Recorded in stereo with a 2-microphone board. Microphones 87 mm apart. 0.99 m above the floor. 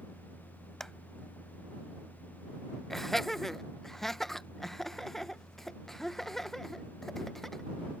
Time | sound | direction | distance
0.8 | a clap | 5° left (ahead or behind) | ?
2.9 | laughter | 5° left (ahead or behind) | ?